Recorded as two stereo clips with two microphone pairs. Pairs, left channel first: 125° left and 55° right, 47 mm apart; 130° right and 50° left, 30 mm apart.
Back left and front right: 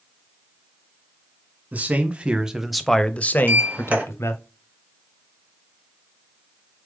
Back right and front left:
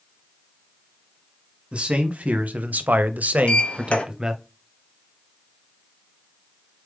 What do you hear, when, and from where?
1.7 s a man speaking: straight ahead, 1.0 m; by 4.4 s 120° left, 0.9 m
3.4 s a sliding door: 95° right, 1.1 m